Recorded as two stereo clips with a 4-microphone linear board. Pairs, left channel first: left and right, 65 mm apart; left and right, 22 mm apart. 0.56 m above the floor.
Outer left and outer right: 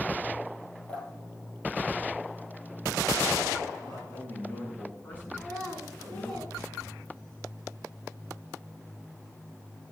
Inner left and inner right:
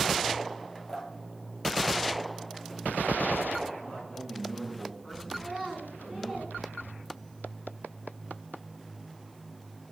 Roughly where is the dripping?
Centre.